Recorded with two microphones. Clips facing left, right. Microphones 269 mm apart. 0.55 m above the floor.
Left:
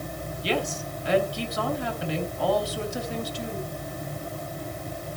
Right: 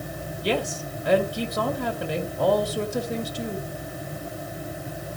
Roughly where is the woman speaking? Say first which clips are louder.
Right 2 dB; right.